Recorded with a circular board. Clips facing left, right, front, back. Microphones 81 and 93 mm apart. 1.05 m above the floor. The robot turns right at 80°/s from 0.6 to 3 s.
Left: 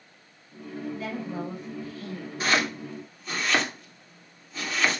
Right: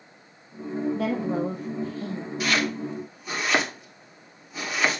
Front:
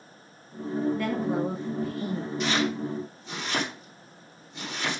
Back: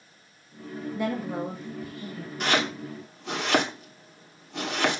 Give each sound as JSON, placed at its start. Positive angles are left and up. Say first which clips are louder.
{"t": 0.9, "sound": "a woman speaking", "louder": "right 7 dB, front 2 dB", "azimuth_deg": -115, "distance_m": 2.0}
{"t": 2.4, "sound": "chopping", "louder": "even, back 1 dB", "azimuth_deg": 145, "distance_m": 3.0}